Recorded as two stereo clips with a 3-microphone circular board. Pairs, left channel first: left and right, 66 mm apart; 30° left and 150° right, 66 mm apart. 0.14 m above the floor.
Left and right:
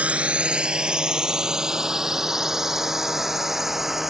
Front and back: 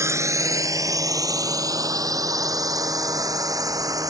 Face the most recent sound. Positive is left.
turn(degrees=-175)